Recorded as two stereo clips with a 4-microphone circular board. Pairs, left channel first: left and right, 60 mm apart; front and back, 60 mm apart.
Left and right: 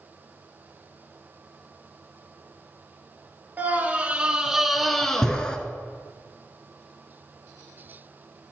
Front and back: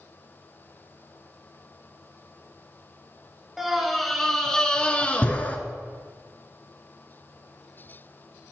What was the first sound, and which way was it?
A scream, 95° right.